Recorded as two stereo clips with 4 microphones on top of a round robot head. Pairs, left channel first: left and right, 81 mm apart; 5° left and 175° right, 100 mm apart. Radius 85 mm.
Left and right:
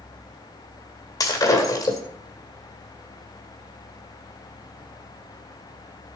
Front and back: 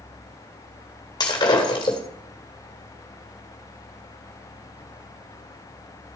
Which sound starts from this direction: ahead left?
Breaking glass, at 1.2 s.